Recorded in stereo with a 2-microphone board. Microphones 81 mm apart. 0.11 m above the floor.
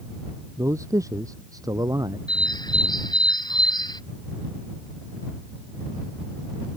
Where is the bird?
60° left (ahead or behind).